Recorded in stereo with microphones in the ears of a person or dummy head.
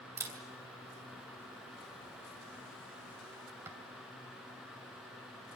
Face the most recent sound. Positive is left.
turn(degrees=-15)  # may be behind; listen again after turning